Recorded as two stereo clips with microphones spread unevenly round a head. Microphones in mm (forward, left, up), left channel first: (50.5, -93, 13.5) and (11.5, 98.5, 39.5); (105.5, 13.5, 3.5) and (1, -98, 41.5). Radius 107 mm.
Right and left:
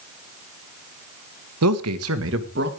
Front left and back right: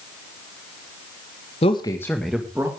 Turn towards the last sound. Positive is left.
turn(degrees=150)